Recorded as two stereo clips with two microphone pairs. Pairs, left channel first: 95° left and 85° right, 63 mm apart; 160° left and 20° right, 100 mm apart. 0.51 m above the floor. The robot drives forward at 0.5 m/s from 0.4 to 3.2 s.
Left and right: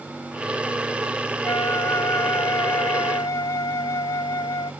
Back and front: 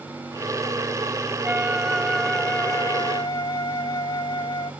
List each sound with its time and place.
1.4 s a flute: 55° left; by 4.7 s 110° left